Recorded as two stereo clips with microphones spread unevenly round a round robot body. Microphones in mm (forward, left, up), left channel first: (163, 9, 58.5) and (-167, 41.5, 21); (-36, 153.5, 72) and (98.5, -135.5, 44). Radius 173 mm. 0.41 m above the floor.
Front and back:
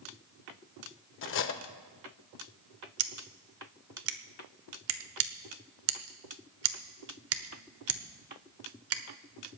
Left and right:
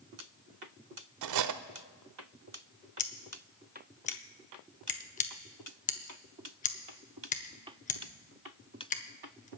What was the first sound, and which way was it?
Cutlery clinking, 60° right.